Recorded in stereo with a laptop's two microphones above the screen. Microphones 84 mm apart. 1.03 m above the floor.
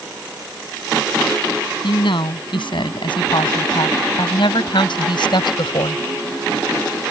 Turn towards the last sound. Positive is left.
turn(degrees=70)  # may be behind; listen again after turning